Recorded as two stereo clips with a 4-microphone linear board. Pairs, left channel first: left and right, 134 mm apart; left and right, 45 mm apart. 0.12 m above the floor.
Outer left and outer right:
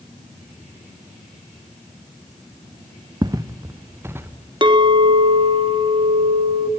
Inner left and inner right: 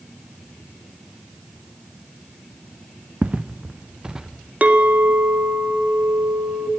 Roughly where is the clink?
Right.